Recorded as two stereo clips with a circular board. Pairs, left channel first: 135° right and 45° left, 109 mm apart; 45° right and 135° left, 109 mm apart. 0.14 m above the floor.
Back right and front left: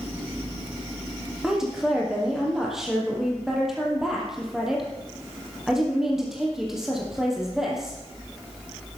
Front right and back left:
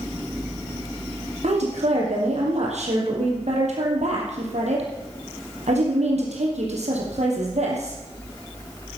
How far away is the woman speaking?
About 4 m.